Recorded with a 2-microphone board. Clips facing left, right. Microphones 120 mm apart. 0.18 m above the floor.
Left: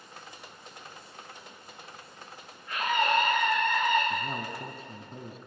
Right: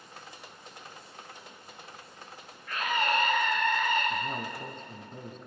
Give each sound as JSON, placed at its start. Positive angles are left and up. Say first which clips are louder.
{"t": 2.7, "sound": "a scream", "louder": "left 2 dB", "side_deg": 20, "distance_m": 9.0}
{"t": 4.1, "sound": "a man speaking", "louder": "even", "side_deg": 10, "distance_m": 1.7}